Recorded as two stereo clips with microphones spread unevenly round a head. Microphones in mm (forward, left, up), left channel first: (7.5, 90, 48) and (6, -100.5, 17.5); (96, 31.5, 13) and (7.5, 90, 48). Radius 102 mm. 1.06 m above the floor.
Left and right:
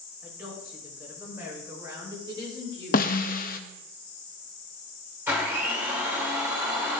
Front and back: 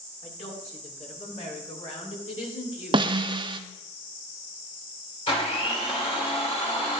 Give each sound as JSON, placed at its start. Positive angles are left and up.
{"t": 0.2, "sound": "a woman speaking", "azimuth_deg": -5, "distance_m": 4.0}
{"t": 2.9, "sound": "a snare drum", "azimuth_deg": 130, "distance_m": 0.5}
{"t": 5.3, "sound": "a blender", "azimuth_deg": -15, "distance_m": 2.5}